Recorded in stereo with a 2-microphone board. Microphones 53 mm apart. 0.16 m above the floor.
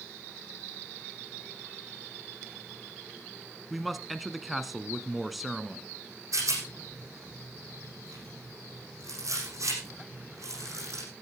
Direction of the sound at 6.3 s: 80° right.